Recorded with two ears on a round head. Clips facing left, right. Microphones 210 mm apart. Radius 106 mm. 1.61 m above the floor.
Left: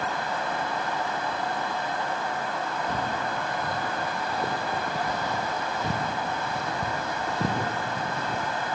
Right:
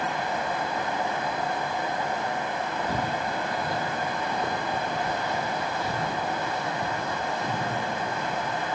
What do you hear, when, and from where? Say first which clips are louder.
2.9 s footsteps: right 1 dB; 10° right (ahead or behind), 3 m; by 8.8 s 40° left (ahead or behind), 4.5 m